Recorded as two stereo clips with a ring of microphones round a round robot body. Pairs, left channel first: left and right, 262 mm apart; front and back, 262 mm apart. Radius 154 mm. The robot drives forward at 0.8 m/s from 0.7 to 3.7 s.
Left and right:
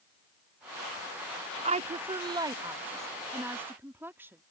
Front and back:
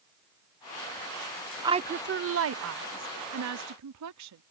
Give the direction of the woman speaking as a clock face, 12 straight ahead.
4 o'clock.